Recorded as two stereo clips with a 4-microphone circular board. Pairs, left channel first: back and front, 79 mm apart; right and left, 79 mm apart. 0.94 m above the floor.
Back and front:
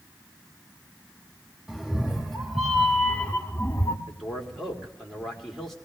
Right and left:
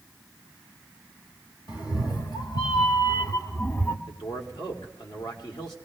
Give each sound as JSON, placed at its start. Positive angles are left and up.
{"t": 1.7, "sound": "a cat meowing", "azimuth_deg": -80, "distance_m": 1.7}
{"t": 4.1, "sound": "a man speaking", "azimuth_deg": -95, "distance_m": 2.5}